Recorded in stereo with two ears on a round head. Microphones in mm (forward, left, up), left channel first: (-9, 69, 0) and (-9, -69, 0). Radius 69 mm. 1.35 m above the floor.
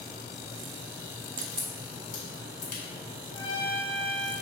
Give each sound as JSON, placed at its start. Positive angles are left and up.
{"t": 1.4, "sound": "a crack", "side_deg": 55, "distance_m": 1.5}
{"t": 3.3, "sound": "a trumpet", "side_deg": 30, "distance_m": 1.7}